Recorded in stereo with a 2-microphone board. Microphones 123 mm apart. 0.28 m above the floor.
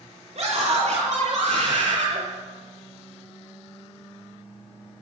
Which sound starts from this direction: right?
A scream, at 0.3 s.